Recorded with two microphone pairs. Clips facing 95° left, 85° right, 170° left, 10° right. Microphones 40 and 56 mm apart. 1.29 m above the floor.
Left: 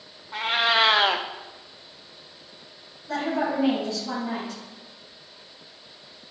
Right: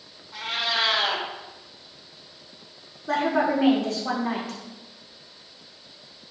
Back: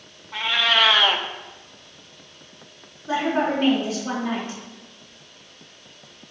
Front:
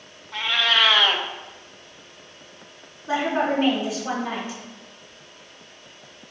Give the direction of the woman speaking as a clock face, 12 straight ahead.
3 o'clock.